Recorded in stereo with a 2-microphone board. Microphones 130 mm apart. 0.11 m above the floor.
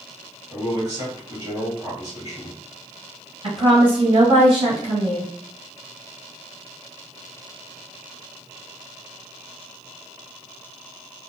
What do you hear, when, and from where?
0.5 s a man speaking: 30° right (ahead or behind), 1.9 m
3.4 s a woman speaking: 40° right (ahead or behind), 1.8 m